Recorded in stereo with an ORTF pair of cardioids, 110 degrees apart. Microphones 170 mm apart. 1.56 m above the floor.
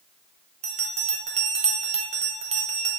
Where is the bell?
40° right, 1.3 m.